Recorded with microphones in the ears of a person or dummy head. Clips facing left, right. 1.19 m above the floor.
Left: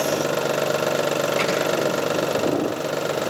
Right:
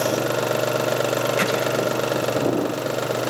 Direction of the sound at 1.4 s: 10° right (ahead or behind).